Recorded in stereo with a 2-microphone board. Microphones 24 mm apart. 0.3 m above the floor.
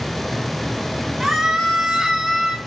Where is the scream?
10° right (ahead or behind), 3 m; by 2.6 s 15° right (ahead or behind), 4 m.